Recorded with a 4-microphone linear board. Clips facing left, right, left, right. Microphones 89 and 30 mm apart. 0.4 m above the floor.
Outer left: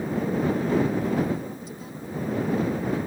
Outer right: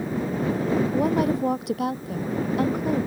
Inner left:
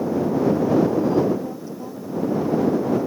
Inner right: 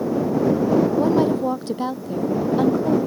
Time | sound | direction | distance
0.9 | a woman speaking | 75° right (ahead or behind) | ?